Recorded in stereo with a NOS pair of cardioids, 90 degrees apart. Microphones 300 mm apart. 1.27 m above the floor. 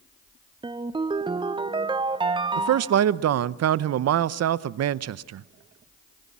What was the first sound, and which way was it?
A ringtone, 15° right.